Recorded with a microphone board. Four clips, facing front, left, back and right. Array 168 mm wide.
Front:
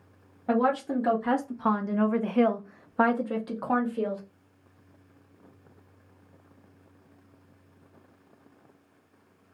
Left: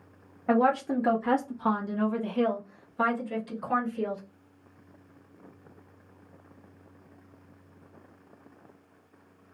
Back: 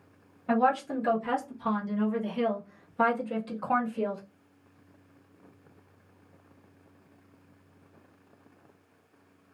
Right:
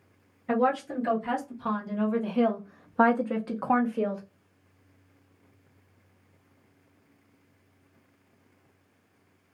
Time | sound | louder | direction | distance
0.5 | a woman speaking | left 2 dB, front 1 dB | 55° left | 1.1 m